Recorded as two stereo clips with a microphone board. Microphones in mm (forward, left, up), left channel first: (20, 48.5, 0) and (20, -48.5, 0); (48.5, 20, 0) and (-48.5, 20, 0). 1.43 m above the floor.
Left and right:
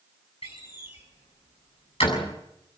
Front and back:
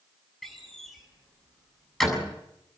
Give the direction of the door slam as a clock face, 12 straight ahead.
9 o'clock.